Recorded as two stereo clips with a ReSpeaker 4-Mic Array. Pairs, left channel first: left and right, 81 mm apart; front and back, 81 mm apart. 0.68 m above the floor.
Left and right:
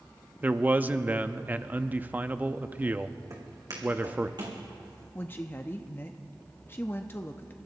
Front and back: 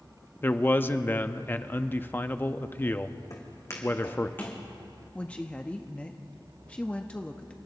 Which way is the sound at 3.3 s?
45° right.